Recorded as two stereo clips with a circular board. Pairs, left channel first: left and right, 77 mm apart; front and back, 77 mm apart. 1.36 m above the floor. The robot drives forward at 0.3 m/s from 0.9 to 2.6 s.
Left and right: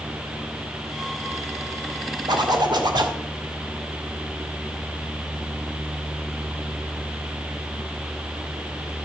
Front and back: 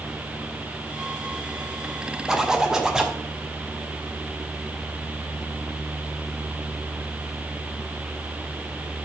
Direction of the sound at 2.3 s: 95° right.